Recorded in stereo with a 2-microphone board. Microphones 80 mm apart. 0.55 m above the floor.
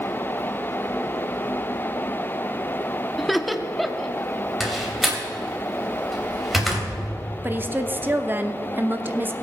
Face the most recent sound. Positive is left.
turn(degrees=-25)  # may be behind; listen again after turning